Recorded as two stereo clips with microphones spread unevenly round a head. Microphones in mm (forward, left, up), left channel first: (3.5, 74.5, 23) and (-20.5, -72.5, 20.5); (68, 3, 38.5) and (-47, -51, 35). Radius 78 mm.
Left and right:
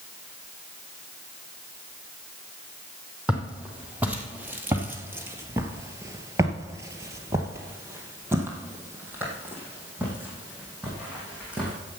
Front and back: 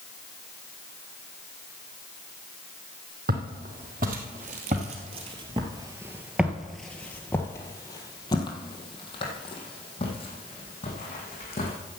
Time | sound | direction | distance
3.3 | footsteps | straight behind | 2.5 m